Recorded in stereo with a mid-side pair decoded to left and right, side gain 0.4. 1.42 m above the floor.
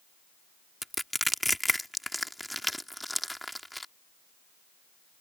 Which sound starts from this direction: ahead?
Crushing, at 0.8 s.